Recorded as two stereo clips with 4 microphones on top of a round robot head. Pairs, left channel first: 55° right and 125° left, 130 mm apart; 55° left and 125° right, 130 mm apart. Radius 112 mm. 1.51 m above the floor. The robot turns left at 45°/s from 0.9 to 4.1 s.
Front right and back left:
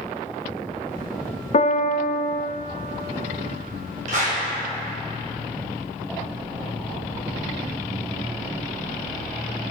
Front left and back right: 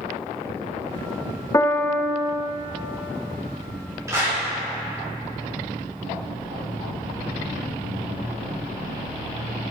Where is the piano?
15° right, 0.5 m; by 2.5 s 55° right, 0.5 m.